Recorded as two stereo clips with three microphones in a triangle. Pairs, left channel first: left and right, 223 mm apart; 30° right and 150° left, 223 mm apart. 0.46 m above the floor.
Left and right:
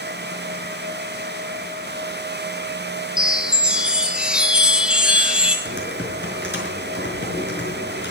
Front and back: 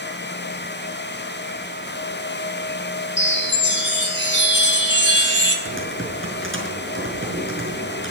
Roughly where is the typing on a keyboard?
Behind left.